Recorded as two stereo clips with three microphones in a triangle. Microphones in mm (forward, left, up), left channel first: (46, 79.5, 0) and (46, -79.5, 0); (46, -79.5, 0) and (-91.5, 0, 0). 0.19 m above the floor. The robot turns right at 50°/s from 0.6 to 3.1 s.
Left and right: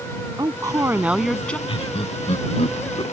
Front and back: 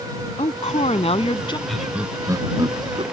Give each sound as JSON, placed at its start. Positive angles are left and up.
{"t": 0.4, "sound": "a woman speaking", "azimuth_deg": -35}
{"t": 1.7, "sound": "laughter", "azimuth_deg": 55}